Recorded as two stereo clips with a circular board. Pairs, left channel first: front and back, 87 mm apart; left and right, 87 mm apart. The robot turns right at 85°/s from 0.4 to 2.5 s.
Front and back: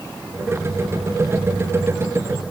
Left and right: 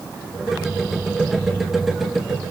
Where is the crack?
I don't hear a crack.